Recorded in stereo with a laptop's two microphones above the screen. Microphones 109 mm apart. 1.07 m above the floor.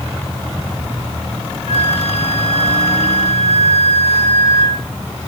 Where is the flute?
75° left (ahead or behind), 3 m.